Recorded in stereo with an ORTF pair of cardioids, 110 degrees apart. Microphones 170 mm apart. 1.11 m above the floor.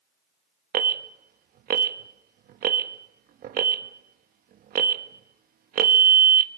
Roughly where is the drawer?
I don't hear a drawer.